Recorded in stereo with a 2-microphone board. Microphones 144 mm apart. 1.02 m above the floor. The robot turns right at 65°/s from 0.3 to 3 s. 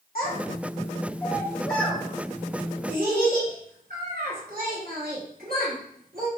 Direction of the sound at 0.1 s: 80° left.